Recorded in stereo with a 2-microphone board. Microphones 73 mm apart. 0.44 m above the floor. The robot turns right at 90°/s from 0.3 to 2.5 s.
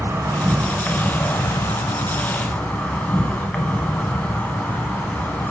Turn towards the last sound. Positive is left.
turn(degrees=160)